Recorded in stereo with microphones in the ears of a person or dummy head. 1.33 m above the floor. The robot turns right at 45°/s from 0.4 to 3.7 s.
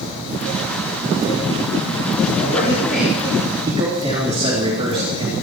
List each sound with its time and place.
2.4 s a man speaking: 145° left, 3.5 m; by 5.3 s 155° right, 3.5 m